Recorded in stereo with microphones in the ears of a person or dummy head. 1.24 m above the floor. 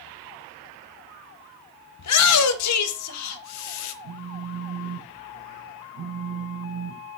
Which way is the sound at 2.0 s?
85° left.